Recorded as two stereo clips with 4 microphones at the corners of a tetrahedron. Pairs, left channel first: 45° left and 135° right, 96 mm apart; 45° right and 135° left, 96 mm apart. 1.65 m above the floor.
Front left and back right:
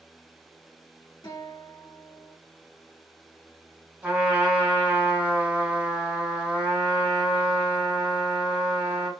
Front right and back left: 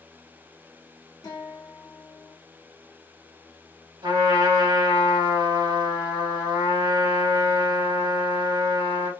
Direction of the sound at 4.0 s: 155° left.